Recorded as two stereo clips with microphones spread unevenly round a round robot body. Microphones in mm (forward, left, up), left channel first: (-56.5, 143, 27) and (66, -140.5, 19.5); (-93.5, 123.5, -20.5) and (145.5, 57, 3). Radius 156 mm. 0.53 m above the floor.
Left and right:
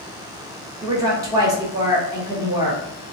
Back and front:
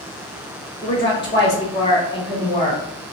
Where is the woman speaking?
140° right, 1.2 m.